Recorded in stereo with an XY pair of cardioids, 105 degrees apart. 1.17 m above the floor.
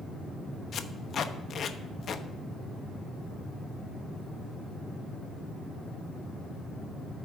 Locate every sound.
0.7 s tape being pulled: 50° left, 0.8 m